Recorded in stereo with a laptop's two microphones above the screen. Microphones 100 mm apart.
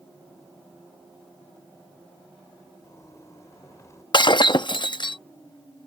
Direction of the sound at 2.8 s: 30° left (ahead or behind).